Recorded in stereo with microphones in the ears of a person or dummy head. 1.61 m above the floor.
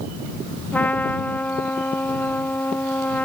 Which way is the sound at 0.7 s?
10° left (ahead or behind).